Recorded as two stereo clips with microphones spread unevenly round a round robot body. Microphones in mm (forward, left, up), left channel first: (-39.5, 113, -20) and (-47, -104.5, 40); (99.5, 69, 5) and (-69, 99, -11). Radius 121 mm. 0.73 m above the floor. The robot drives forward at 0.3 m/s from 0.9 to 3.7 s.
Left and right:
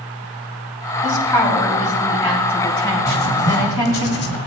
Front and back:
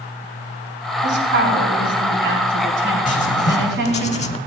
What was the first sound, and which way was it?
A woman speaking, 165° left.